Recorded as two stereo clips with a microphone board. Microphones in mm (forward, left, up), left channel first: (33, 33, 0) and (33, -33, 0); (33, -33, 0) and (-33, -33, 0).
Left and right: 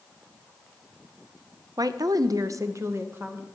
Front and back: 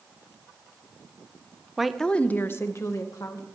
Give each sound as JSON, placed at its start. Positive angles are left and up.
{"t": 1.8, "sound": "a woman speaking", "azimuth_deg": -100, "distance_m": 0.5}